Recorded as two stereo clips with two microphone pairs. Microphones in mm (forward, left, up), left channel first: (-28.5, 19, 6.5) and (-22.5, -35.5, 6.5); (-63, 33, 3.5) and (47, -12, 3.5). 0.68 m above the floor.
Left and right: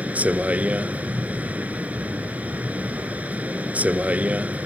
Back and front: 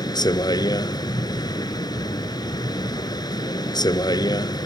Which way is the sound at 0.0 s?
145° right.